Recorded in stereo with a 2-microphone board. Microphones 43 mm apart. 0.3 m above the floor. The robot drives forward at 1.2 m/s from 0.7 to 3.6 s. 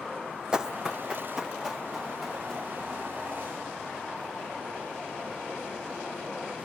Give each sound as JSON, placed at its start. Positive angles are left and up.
{"t": 0.5, "sound": "running footsteps", "side_deg": -20, "distance_m": 0.6}